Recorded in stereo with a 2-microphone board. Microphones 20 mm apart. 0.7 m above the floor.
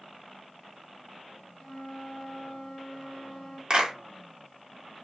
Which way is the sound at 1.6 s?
55° left (ahead or behind).